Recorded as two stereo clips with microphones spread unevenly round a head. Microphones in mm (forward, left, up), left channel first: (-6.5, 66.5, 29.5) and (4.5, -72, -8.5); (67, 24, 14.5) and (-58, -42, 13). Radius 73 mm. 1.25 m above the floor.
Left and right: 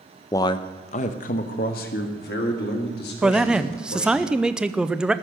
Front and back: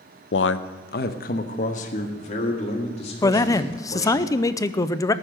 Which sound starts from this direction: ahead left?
A man speaking, at 0.3 s.